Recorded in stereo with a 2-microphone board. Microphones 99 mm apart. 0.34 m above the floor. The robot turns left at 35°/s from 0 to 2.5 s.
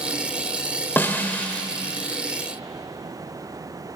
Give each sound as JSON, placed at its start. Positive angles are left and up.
{"t": 1.0, "sound": "a snare drum", "side_deg": 20, "distance_m": 1.0}